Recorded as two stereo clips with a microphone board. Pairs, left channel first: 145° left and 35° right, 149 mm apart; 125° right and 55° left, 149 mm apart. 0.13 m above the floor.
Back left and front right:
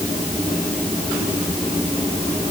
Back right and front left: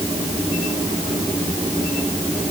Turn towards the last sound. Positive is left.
No sound to turn to.